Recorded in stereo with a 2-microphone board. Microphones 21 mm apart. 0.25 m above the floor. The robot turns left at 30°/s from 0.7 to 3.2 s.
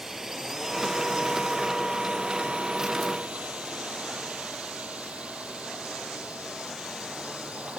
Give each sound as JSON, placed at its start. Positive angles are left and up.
{"t": 0.0, "sound": "a drone", "side_deg": -20}